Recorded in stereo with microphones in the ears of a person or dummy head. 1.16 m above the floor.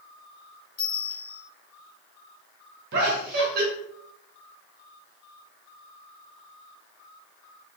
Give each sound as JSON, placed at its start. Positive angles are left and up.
{"t": 0.8, "sound": "a bell", "side_deg": 5, "distance_m": 2.0}
{"t": 2.9, "sound": "laughter", "side_deg": -60, "distance_m": 1.6}